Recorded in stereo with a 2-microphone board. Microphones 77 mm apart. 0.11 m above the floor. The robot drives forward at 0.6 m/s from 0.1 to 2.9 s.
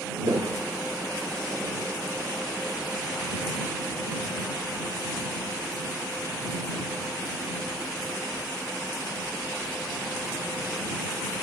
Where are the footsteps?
65° right (ahead or behind), 0.9 m; by 1.9 s 20° right (ahead or behind), 2.5 m.